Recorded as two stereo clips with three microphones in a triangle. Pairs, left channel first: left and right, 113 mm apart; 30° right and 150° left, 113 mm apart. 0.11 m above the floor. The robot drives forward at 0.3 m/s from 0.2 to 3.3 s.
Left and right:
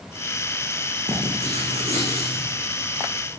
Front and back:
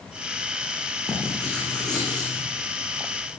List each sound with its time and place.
1.1 s writing: 110° right, 8 m; by 2.5 s 115° right, 8.5 m